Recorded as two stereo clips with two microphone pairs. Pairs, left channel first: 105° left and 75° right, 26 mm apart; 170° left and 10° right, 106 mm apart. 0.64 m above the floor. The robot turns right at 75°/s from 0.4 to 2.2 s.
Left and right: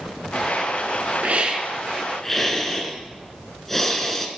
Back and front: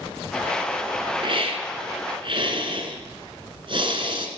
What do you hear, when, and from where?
1.2 s a hiss: 50° right, 2 m; by 4.3 s 25° left, 2 m